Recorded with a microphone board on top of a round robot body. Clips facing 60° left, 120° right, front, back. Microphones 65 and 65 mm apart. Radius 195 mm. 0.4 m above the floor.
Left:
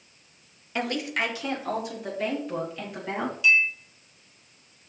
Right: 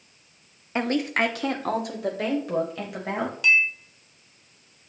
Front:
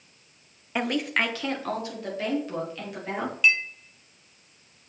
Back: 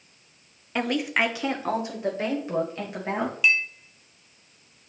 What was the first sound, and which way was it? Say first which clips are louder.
A woman speaking: right 4 dB, back 1 dB; 80° right.